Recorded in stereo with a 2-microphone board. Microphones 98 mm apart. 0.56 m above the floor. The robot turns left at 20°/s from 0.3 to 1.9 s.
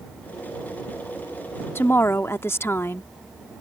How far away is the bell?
I don't hear a bell.